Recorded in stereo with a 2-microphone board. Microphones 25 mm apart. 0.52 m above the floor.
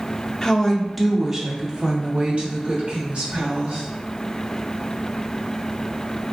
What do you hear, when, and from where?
0.4 s a woman speaking: 20° left (ahead or behind), 0.8 m; by 3.8 s 65° right (ahead or behind), 1.8 m